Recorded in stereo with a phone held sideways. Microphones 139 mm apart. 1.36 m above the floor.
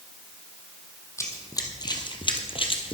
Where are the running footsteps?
25° left (ahead or behind), 2.5 m; by 2.9 s 40° left (ahead or behind), 1.9 m.